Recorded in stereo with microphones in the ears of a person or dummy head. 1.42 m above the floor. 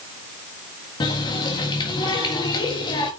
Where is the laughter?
I don't hear laughter.